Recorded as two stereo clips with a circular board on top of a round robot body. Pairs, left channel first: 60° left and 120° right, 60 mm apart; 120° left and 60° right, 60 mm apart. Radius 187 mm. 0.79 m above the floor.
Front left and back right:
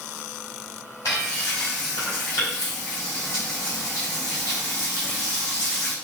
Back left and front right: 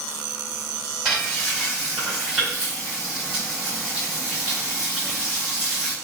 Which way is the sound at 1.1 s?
20° left.